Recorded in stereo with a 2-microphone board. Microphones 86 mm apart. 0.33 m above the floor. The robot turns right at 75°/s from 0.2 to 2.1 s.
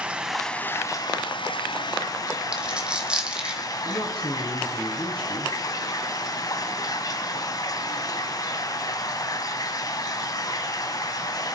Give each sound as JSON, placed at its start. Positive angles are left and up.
{"t": 0.0, "sound": "running water", "azimuth_deg": -10, "distance_m": 1.1}
{"t": 2.5, "sound": "a dropped coin", "side_deg": -10, "distance_m": 2.0}
{"t": 3.9, "sound": "a man speaking", "side_deg": 70, "distance_m": 4.0}